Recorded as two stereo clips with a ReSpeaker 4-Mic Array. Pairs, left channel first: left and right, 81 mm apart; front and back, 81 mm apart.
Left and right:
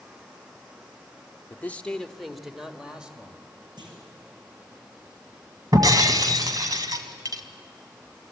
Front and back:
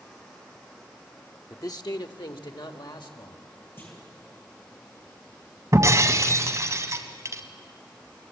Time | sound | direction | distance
1.5 | a man speaking | 35° left | 0.9 m
3.8 | a clunk | 65° right | 6 m
5.7 | breaking glass | 130° right | 1.8 m